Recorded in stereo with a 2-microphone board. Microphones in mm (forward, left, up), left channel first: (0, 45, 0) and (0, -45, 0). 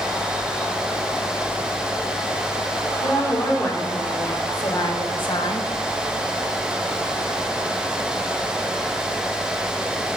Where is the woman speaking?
30° left (ahead or behind), 4 m; by 5.7 s 75° left (ahead or behind), 1.2 m.